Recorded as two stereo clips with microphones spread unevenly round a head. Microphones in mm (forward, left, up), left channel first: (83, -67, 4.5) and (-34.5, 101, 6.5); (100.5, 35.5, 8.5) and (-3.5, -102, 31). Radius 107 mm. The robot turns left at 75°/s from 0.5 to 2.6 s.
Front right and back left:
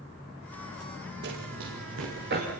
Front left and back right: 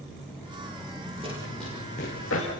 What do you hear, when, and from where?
1.2 s running footsteps: 170° left, 7.5 m; by 2.5 s 75° left, 9 m